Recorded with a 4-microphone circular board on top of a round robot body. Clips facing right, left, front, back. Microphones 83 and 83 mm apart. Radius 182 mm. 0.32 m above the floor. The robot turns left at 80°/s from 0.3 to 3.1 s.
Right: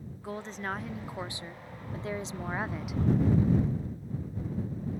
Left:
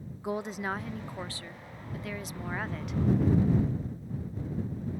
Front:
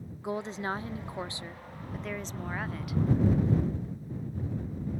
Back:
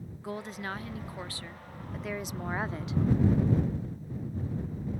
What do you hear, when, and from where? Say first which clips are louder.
0.2 s a woman speaking: left 4 dB, front 4 dB; 40° left; by 3.0 s 175° right